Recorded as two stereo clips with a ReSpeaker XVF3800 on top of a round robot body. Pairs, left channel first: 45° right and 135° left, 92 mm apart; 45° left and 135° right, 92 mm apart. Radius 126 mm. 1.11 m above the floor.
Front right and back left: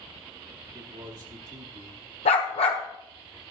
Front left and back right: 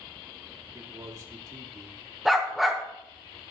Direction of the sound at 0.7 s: 175° left.